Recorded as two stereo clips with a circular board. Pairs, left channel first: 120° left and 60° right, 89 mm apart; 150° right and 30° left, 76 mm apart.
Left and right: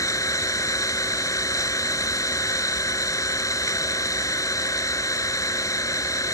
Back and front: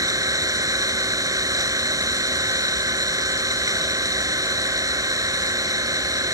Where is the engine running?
70° left.